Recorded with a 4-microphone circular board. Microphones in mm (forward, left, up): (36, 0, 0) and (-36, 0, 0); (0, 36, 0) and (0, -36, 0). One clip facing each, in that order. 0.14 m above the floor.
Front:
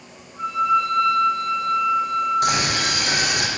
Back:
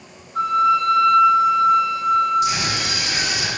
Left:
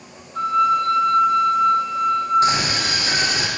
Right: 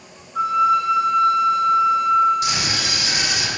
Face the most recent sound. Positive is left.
turn(degrees=35)